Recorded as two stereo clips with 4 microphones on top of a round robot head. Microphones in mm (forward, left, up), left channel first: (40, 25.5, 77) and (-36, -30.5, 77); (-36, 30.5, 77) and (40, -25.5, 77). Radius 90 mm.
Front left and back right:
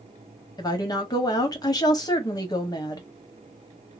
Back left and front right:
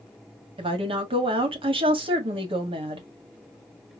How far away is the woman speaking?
About 1.5 m.